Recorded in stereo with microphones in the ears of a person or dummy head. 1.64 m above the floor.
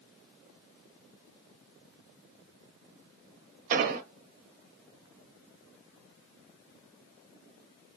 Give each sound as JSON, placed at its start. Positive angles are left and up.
{"t": 3.7, "sound": "an explosion", "side_deg": -50, "distance_m": 0.6}